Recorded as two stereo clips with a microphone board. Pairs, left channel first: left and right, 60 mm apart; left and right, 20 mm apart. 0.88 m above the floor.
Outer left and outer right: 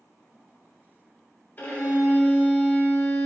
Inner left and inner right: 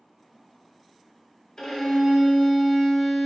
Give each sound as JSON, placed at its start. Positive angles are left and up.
{"t": 1.6, "sound": "a violin", "side_deg": 35, "distance_m": 1.1}